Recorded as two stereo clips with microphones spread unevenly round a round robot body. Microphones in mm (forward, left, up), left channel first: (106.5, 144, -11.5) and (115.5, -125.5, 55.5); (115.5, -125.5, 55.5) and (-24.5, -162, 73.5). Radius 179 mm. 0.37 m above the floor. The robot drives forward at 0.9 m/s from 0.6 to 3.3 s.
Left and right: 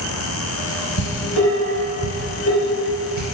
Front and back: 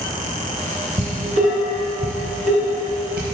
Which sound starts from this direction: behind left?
Dishes clattering, at 1.0 s.